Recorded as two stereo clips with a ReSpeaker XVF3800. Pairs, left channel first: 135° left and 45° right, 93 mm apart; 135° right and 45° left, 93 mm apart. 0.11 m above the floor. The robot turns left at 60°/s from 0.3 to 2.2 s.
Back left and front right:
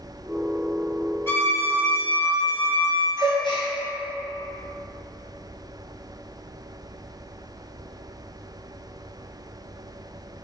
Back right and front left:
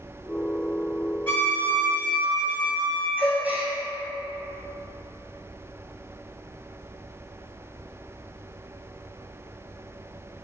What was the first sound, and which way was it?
A violin, 170° left.